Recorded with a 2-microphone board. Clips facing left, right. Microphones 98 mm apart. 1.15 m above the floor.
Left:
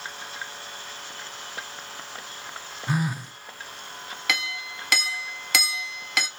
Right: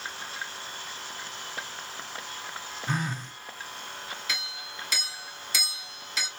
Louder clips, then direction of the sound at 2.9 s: Left 4 dB; 10° left (ahead or behind).